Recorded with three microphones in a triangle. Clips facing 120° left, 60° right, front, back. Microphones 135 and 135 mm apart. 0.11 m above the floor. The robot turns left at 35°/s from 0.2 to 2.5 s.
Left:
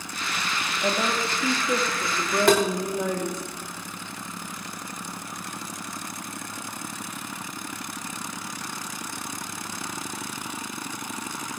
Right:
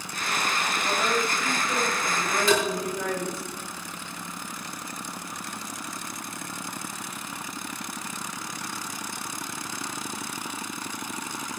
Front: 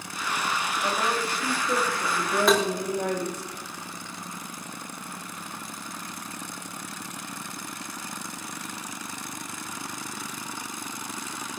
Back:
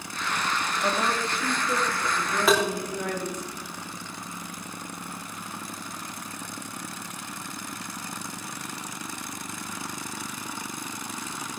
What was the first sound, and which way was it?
A woman speaking, 110° left.